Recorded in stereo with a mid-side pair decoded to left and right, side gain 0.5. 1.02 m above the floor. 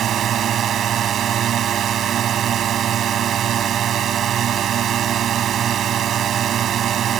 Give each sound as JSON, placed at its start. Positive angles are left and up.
{"t": 0.0, "sound": "a drone", "azimuth_deg": -60}